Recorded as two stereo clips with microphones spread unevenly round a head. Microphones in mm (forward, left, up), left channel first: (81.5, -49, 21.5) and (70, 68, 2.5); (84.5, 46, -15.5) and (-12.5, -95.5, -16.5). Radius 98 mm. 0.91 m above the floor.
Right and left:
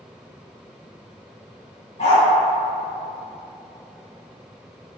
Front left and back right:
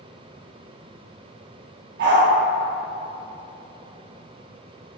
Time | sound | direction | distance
2.0 | a dog barking | 120° right | 1.7 m